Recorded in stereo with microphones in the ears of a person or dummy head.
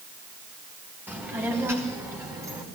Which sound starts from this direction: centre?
A child speaking, at 1.1 s.